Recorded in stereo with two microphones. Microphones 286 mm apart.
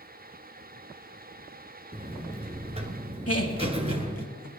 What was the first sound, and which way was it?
A buzzer, 20° right (ahead or behind).